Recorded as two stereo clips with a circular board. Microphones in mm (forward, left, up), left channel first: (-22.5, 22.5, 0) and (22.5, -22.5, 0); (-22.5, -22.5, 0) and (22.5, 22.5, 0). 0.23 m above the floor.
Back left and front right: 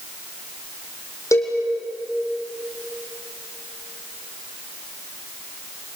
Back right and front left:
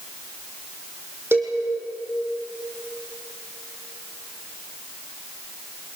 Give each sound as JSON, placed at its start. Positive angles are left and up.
{"t": 1.3, "sound": "a cowbell", "azimuth_deg": 100, "distance_m": 6.0}